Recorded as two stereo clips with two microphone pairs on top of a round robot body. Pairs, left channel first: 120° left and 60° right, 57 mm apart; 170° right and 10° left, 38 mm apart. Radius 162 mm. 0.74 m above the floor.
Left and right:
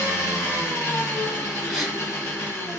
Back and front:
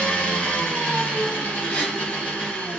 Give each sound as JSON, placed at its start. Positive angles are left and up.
{"t": 0.0, "sound": "an engine running", "azimuth_deg": 150, "distance_m": 1.5}
{"t": 1.7, "sound": "a gasp", "azimuth_deg": -140, "distance_m": 1.7}